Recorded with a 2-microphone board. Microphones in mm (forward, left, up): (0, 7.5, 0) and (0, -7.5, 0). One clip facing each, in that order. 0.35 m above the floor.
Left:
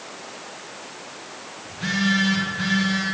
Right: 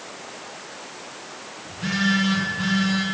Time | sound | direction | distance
1.6 | a phone buzzing | 65° left (ahead or behind) | 5.5 m